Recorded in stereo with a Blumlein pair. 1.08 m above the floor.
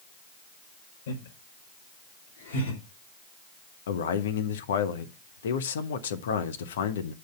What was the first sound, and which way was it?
Laughter, 60° left.